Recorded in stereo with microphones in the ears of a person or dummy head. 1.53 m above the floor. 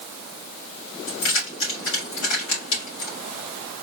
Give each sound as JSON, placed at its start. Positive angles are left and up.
{"t": 1.1, "sound": "keys jangling", "side_deg": 70, "distance_m": 3.0}